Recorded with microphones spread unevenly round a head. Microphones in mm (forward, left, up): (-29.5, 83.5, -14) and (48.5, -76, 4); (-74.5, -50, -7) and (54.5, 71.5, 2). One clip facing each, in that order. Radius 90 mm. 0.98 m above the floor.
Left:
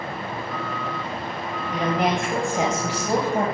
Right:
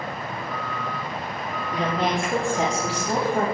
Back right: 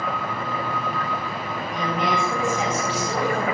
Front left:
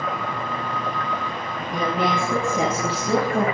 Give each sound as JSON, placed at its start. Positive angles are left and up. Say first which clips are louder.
{"t": 1.7, "sound": "a woman speaking", "louder": "left 2 dB, front left 2 dB", "azimuth_deg": 40, "distance_m": 5.0}